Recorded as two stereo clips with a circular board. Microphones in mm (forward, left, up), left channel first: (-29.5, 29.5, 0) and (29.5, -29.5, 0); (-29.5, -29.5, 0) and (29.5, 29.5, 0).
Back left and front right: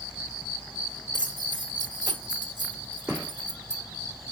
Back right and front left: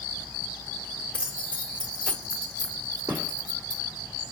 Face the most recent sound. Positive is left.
turn(degrees=30)